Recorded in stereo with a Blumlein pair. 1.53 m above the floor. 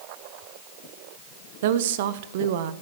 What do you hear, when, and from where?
1.6 s a woman speaking: 55° right, 0.8 m